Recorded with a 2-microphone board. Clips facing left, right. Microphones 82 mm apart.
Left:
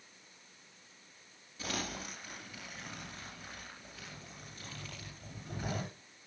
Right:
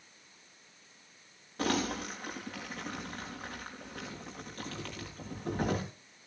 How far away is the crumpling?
About 6 m.